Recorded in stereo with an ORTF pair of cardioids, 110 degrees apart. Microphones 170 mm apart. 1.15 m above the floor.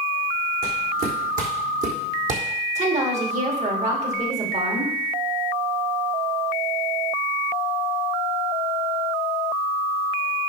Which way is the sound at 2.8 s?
45° right.